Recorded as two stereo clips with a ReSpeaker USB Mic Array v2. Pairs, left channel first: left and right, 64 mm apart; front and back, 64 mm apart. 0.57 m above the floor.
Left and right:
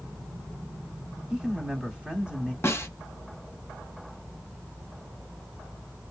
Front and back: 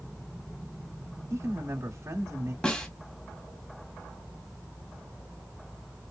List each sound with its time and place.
1.3 s a man speaking: 160° right, 1.3 m
2.6 s a snare drum: 65° left, 1.2 m